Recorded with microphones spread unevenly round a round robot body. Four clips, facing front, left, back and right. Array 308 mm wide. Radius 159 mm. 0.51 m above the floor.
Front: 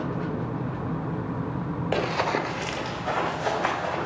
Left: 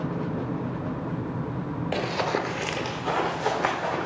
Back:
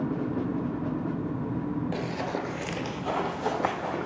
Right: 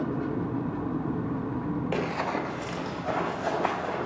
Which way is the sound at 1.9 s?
10° left.